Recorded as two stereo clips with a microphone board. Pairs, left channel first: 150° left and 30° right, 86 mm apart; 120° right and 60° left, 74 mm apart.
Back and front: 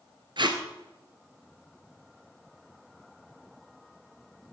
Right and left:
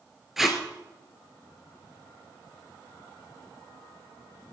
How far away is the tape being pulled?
About 1.6 m.